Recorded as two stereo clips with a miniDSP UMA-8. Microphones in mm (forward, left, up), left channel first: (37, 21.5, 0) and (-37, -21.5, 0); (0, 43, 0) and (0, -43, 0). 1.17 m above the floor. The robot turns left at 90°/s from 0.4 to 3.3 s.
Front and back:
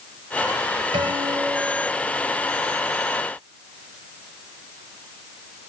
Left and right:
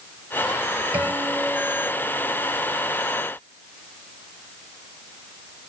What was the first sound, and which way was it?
A guitar, 155° right.